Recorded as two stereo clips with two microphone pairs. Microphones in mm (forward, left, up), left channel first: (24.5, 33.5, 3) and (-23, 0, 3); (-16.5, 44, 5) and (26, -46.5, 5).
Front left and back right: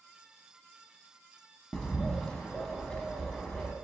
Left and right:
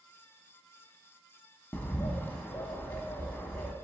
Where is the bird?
90° left, 0.5 m.